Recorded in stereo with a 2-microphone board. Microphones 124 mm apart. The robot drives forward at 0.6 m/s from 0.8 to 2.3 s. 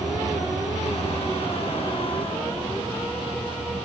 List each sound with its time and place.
0.0 s an insect: 70° left (ahead or behind), 1.5 m; by 3.9 s 45° left (ahead or behind), 2.0 m